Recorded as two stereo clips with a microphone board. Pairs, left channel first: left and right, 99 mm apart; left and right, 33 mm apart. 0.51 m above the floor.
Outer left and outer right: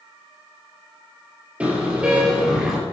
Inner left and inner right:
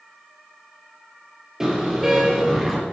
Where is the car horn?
15° right (ahead or behind), 5 m; by 2.8 s 5° right (ahead or behind), 5 m.